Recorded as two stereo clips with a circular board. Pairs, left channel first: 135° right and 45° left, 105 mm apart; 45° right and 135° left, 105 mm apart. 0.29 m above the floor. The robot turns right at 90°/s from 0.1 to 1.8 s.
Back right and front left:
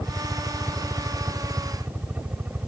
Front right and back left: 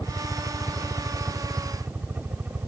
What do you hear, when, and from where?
0.0 s a helicopter: 65° right; by 2.7 s 90° left